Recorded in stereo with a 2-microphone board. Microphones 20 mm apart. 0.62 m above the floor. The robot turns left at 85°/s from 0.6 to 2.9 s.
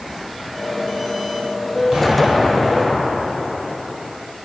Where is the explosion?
130° right, 3.5 m; by 4.1 s 145° left, 3.5 m.